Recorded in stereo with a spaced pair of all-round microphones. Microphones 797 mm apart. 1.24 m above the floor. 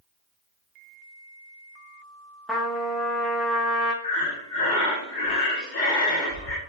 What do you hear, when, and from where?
2.5 s a trumpet: centre (ahead or behind), 0.7 m
4.0 s breathing: 65° left (ahead or behind), 0.8 m